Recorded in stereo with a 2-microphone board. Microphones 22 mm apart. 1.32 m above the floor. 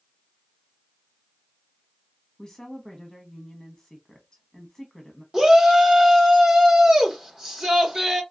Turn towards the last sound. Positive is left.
turn(degrees=-20)  # may be behind; listen again after turning